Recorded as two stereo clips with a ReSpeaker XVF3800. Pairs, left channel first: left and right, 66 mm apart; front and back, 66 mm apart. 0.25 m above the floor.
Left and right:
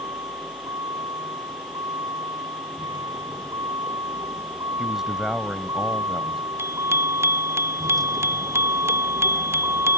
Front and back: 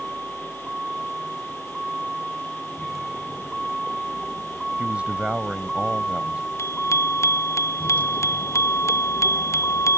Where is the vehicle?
100° right; by 10.0 s 40° right.